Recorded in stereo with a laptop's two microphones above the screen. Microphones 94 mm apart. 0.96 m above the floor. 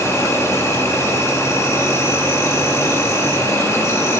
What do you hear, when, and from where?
0.0 s an insect: 30° left (ahead or behind), 2.5 m